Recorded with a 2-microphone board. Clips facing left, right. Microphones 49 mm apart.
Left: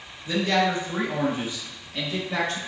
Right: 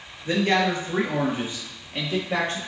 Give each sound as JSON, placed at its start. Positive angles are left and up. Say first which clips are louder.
{"t": 0.2, "sound": "a man speaking", "louder": "right 1 dB", "side_deg": -45, "distance_m": 1.9}